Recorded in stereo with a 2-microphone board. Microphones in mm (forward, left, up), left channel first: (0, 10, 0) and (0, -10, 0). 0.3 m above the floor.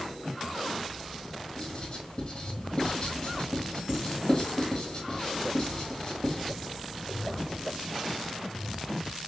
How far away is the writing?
About 2.5 m.